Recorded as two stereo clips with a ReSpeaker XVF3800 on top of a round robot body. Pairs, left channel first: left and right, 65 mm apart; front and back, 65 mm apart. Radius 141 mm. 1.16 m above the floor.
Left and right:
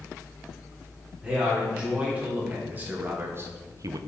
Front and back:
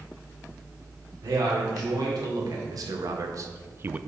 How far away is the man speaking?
About 2.5 m.